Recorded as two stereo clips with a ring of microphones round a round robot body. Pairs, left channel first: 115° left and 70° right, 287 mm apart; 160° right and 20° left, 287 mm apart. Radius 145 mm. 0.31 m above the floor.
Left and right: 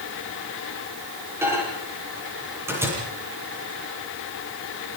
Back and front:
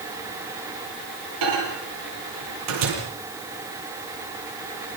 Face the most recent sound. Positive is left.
turn(degrees=15)